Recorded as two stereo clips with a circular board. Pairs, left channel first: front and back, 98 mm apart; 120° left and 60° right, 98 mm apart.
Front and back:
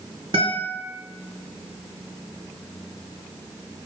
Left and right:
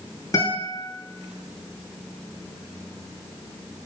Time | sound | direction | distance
0.3 | a guitar | 170° left | 2.5 m